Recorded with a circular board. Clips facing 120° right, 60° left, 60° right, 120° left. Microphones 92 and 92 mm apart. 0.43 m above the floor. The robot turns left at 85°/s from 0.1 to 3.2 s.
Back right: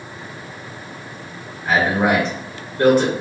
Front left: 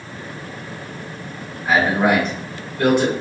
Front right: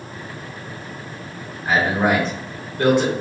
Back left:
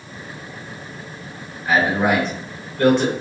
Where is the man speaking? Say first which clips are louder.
Front left 1 dB, back left 1 dB; 10° right, 1.5 m; by 3.1 s 135° right, 1.5 m.